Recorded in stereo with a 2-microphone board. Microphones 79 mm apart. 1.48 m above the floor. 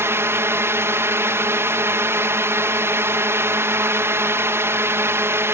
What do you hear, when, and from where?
0.0 s a drone: 30° right (ahead or behind)